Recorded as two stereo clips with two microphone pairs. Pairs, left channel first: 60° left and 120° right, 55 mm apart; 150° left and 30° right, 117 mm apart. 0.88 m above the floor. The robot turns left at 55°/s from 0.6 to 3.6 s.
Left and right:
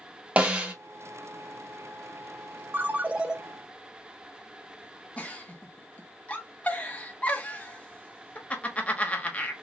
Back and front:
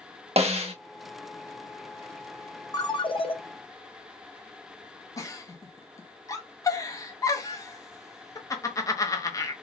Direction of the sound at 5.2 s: 110° left.